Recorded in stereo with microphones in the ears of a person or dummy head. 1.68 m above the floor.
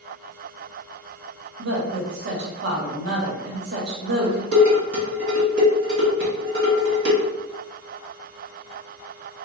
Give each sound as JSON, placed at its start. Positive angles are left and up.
{"t": 1.6, "sound": "a woman speaking", "side_deg": -65, "distance_m": 0.9}
{"t": 4.5, "sound": "dishes clattering", "side_deg": -60, "distance_m": 1.5}